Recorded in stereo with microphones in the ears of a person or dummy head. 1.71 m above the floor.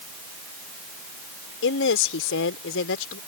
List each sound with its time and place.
1.6 s a woman speaking: 70° left (ahead or behind)